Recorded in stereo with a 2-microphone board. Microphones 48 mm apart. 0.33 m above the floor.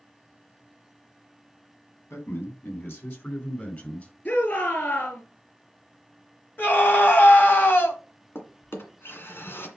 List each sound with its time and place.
2.1 s a man speaking: 60° left (ahead or behind), 3 m; by 4.1 s 30° left (ahead or behind), 4 m
4.2 s a shout: 35° left (ahead or behind), 5.5 m
6.6 s a scream: 45° left (ahead or behind), 2.5 m
8.3 s a drawer: 55° left (ahead or behind), 2 m